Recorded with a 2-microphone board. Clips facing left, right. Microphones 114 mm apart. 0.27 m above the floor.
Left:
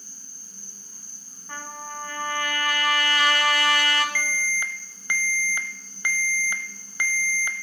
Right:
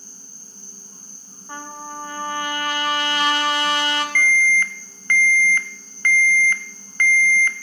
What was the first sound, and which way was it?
An insect, 45° left (ahead or behind).